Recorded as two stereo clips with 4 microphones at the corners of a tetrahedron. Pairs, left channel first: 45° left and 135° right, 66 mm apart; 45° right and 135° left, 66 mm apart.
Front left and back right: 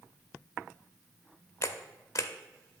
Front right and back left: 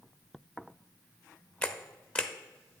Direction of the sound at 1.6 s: 25° left.